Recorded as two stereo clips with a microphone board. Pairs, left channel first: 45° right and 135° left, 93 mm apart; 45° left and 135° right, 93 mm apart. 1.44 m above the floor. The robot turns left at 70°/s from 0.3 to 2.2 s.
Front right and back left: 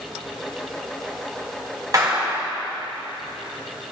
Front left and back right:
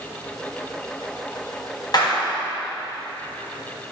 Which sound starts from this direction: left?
A clap, at 1.9 s.